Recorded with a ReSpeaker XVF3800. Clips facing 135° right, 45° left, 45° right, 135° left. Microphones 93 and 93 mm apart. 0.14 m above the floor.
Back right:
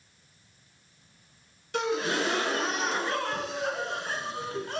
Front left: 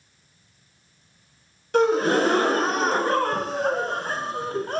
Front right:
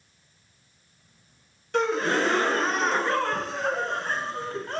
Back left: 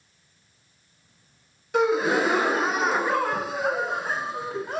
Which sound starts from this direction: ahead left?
A gasp, at 1.7 s.